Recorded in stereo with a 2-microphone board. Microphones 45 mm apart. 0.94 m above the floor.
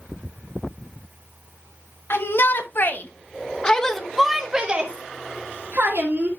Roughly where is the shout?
Left.